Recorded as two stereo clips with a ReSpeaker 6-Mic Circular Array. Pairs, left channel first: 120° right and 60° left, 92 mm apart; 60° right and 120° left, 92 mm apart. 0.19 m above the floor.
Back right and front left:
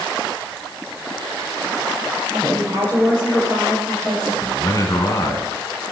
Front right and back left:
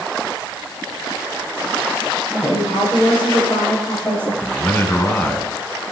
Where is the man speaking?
115° right, 1.9 m.